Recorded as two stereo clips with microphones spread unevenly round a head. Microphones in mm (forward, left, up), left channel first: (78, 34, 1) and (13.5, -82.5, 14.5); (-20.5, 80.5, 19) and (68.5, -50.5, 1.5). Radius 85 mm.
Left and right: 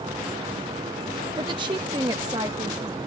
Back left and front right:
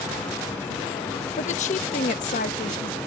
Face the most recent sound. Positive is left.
turn(degrees=170)